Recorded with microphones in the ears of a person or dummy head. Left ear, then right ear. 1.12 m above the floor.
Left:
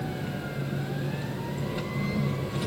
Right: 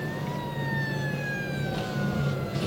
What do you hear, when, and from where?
0.0 s an engine running: centre (ahead or behind), 2 m